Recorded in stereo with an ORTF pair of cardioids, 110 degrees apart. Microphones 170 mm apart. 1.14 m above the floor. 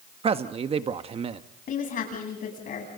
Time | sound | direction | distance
0.2 | a man speaking | 35° right | 1.3 m
1.7 | a woman speaking | 55° left | 9.5 m